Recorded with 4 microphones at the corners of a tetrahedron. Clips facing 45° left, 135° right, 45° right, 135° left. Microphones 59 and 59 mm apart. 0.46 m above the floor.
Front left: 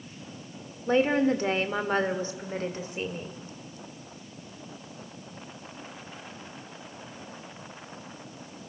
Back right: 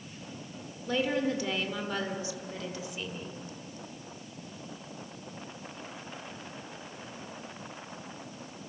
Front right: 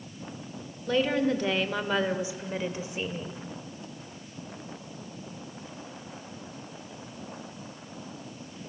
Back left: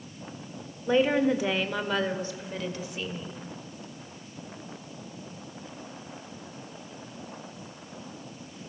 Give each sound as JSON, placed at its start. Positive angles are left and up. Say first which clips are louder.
{"t": 0.9, "sound": "a woman speaking", "louder": "front left 6 dB, back left 3 dB", "azimuth_deg": 75, "distance_m": 1.7}